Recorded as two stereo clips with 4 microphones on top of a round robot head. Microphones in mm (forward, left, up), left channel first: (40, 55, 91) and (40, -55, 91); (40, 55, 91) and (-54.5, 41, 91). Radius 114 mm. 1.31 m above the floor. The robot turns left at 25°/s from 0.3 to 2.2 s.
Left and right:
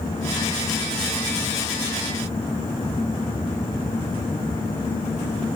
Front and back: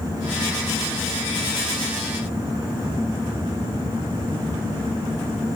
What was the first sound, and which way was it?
Only background noise.